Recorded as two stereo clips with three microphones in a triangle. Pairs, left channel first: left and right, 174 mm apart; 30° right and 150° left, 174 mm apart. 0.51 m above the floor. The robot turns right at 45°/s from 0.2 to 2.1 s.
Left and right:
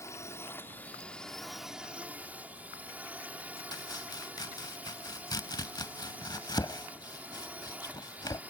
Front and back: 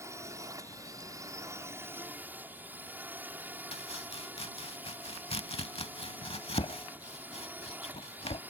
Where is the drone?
120° left; by 8.5 s 155° right.